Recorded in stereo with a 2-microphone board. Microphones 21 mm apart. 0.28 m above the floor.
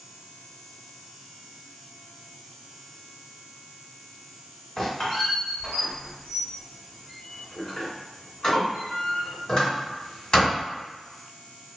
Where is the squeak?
35° left (ahead or behind), 1.4 m.